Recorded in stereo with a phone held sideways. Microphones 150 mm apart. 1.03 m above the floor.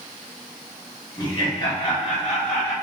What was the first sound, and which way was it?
Laughter, 30° left (ahead or behind).